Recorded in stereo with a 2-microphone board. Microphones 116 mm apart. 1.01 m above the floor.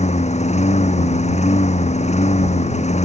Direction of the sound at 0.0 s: 75° left (ahead or behind).